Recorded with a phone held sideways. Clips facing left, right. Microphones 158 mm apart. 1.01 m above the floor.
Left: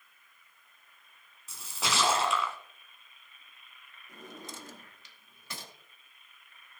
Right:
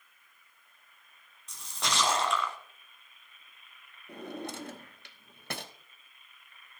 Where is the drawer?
65° right (ahead or behind), 0.8 m.